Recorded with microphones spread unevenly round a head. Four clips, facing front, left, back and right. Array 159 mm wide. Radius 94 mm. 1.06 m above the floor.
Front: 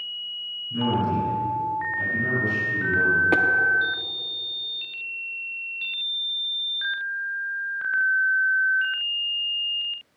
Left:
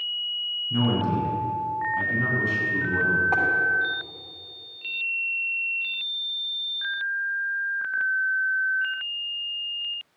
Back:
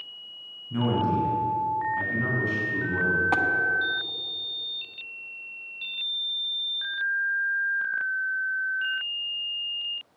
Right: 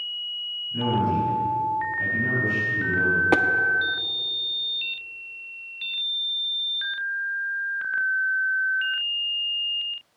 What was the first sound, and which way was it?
A man speaking, 95° left.